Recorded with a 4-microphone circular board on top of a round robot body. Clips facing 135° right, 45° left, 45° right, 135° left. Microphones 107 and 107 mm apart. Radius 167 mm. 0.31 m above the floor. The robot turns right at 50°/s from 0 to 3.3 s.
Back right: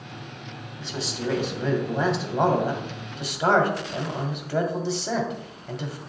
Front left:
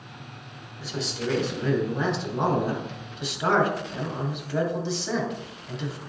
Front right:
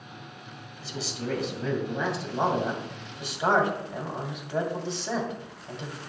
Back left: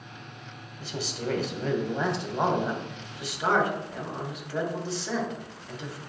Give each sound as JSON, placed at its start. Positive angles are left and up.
{"t": 0.8, "sound": "a man speaking", "azimuth_deg": 130, "distance_m": 2.0}